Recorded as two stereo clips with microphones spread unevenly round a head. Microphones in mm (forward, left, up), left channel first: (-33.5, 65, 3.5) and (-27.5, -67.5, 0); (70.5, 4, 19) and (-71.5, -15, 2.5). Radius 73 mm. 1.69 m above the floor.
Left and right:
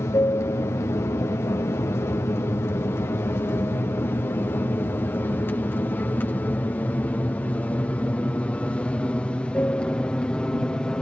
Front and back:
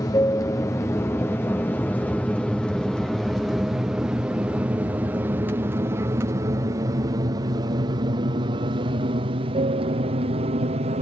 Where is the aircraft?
50° left; by 11.0 s 175° left.